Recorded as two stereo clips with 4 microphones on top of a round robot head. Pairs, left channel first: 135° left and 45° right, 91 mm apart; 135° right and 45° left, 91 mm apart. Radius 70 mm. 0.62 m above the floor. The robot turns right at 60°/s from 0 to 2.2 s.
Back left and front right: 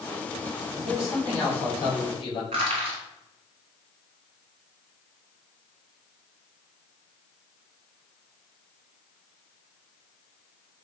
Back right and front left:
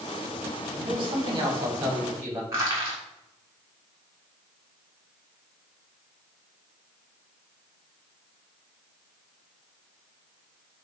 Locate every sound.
0.8 s a man speaking: 25° left, 2 m; by 2.4 s 115° left, 2 m
2.5 s crushing: 20° right, 1.4 m